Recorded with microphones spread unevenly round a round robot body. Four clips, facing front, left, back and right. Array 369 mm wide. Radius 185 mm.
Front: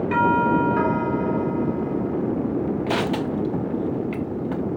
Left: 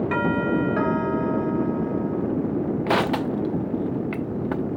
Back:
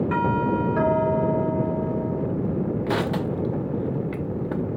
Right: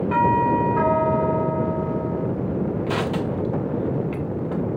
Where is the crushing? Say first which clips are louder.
Left 2 dB, front 1 dB; 135° left, 0.7 m.